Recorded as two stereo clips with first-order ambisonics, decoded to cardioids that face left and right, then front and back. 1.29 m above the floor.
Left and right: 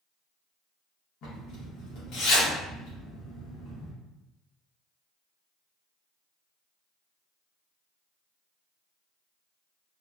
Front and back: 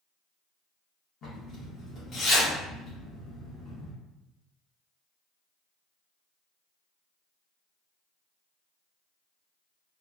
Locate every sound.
1.2 s a zipper: 55° left, 1.3 m